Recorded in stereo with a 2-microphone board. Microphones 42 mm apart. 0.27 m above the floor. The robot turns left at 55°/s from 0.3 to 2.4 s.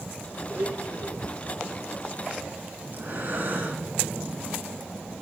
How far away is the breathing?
About 2.5 m.